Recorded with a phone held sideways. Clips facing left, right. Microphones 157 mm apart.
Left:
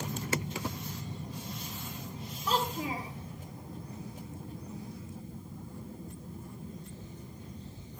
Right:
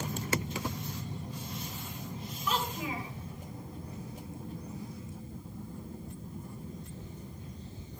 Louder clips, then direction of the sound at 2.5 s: Left 2 dB; 35° left (ahead or behind).